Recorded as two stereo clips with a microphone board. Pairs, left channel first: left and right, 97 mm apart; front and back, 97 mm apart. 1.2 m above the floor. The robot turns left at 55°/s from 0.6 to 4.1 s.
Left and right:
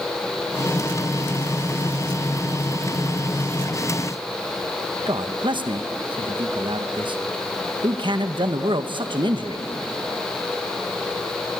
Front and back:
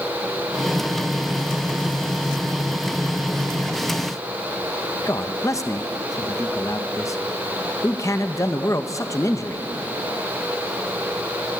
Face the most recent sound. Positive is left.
turn(degrees=-55)